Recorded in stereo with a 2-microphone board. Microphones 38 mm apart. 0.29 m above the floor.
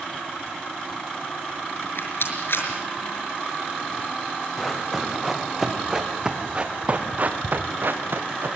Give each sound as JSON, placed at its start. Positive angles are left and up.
{"t": 1.8, "sound": "a rattle", "side_deg": 65, "distance_m": 5.5}
{"t": 4.6, "sound": "running footsteps", "side_deg": 5, "distance_m": 5.0}